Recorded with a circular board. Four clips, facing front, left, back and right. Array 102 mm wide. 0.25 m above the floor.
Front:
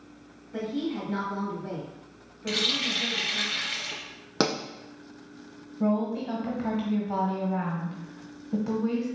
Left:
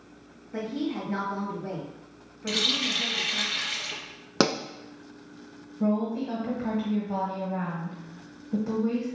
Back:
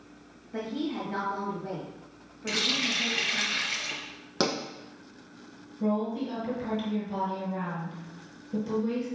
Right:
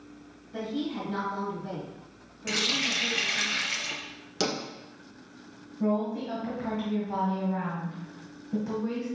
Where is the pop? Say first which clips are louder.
Left 6 dB, front 2 dB; 75° left, 0.5 m.